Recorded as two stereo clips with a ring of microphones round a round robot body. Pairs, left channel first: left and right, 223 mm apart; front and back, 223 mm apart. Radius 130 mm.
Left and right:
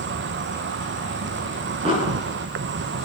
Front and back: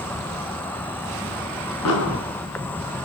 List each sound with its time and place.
0.0 s an insect: 80° right, 1.0 m
1.9 s an explosion: 20° right, 8 m